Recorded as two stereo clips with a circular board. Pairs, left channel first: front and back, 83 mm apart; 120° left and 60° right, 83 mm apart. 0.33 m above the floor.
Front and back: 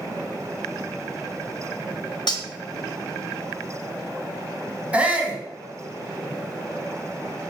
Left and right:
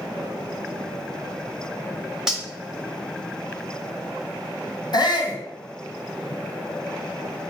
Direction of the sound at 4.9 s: 105° left.